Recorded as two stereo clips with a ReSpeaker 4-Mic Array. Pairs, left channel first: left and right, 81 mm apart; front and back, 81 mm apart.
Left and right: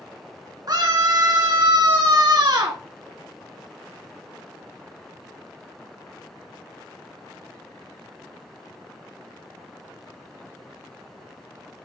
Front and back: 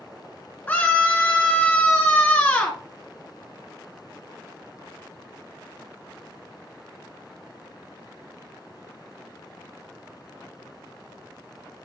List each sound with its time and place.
0.7 s a scream: 65° right, 1.9 m